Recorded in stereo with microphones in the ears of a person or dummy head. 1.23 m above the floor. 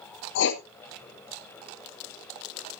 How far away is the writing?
About 1.6 m.